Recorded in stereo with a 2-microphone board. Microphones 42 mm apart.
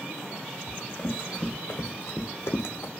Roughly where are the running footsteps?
Left.